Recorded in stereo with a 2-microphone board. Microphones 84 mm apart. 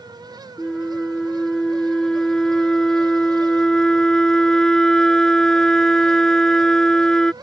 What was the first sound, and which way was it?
A flute, 5° left (ahead or behind).